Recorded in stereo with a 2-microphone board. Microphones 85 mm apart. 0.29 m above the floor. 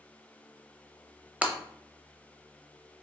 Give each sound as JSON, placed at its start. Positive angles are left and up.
{"t": 1.4, "sound": "breaking glass", "side_deg": -15, "distance_m": 0.5}